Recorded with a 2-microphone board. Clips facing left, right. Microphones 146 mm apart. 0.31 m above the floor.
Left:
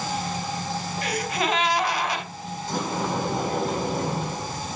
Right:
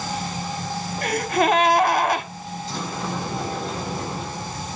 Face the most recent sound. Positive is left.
turn(degrees=55)  # may be behind; listen again after turning